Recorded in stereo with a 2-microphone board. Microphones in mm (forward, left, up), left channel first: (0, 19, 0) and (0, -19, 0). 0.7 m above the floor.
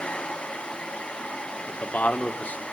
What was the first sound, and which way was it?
A man speaking, 40° left (ahead or behind).